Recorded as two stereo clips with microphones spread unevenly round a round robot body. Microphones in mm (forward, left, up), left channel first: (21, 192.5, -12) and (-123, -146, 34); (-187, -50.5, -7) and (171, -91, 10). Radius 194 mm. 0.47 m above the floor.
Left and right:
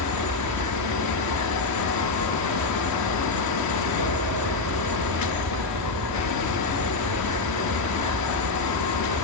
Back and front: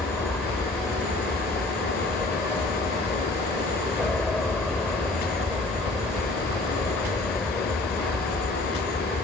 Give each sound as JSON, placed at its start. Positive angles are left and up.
{"t": 0.0, "sound": "an aircraft", "azimuth_deg": -100}